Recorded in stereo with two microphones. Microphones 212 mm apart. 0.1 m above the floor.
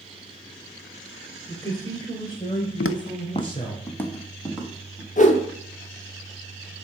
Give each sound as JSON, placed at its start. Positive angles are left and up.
{"t": 1.5, "sound": "a man speaking", "side_deg": 15, "distance_m": 2.0}
{"t": 2.8, "sound": "footsteps", "side_deg": 85, "distance_m": 0.5}
{"t": 5.2, "sound": "a whoosh", "side_deg": 35, "distance_m": 1.1}